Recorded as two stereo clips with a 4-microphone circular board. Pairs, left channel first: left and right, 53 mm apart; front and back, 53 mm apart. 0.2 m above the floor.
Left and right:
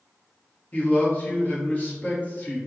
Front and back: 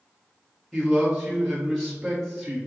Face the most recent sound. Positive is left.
turn(degrees=85)